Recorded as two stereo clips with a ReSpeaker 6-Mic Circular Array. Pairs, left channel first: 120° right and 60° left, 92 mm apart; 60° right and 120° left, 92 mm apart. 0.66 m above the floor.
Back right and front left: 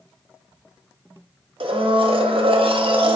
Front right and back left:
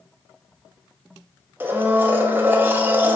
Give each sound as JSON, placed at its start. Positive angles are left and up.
{"t": 1.6, "sound": "a blender", "azimuth_deg": 50, "distance_m": 0.5}